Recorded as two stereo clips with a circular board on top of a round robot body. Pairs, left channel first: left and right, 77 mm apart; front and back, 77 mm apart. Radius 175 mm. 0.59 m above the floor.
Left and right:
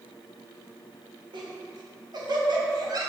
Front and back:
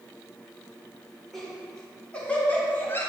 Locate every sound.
1.3 s laughter: 85° right, 2 m; by 3.1 s 60° right, 1.6 m